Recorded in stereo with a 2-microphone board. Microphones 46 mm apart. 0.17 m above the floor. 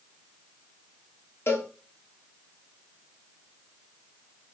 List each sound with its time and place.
1.5 s a cowbell: 60° left (ahead or behind), 1.1 m